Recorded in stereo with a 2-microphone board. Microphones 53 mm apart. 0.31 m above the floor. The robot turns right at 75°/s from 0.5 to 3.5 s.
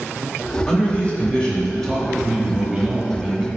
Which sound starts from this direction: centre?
A man speaking, at 0.7 s.